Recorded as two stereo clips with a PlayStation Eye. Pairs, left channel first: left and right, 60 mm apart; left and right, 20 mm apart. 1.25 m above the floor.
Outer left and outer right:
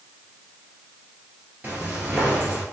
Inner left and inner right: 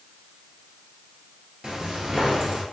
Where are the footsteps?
25° right (ahead or behind), 1.6 m.